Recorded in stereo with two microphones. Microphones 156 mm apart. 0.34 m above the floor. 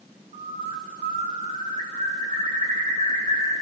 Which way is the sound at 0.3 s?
50° right (ahead or behind).